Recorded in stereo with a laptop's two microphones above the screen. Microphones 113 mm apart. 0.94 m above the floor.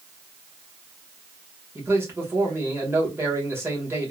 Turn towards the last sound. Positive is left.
turn(degrees=-20)  # may be behind; listen again after turning